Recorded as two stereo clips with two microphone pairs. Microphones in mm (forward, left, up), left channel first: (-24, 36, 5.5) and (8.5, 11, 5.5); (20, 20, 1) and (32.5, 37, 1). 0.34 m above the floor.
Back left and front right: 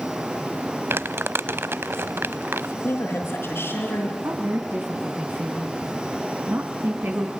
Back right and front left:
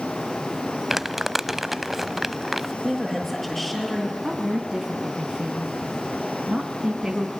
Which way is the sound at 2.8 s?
155° left.